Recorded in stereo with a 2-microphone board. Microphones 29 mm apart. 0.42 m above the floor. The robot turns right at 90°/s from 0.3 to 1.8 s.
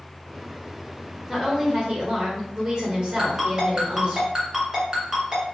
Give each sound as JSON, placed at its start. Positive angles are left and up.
{"t": 1.3, "sound": "a woman speaking", "azimuth_deg": -175, "distance_m": 1.5}
{"t": 3.2, "sound": "a ringtone", "side_deg": -25, "distance_m": 2.0}